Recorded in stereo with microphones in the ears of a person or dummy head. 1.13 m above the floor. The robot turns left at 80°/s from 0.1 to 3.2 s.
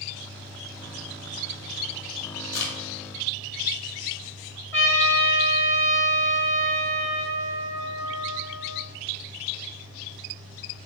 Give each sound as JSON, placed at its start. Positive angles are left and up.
{"t": 2.5, "sound": "a crack", "side_deg": 50, "distance_m": 1.6}
{"t": 4.7, "sound": "a trumpet", "side_deg": 15, "distance_m": 1.6}